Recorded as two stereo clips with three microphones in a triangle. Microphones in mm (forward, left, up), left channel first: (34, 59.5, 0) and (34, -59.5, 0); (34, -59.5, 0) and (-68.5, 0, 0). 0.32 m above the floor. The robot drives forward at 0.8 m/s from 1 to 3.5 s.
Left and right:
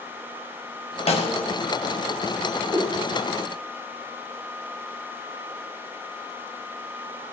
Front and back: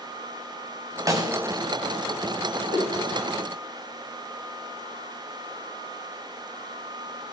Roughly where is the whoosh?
Behind left.